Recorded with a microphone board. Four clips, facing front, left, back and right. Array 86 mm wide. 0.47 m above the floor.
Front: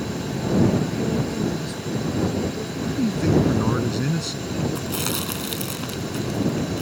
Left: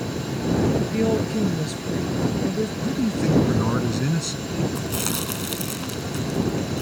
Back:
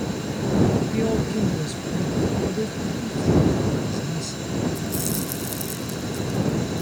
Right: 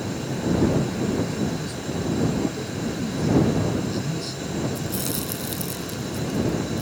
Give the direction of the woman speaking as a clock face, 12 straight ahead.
8 o'clock.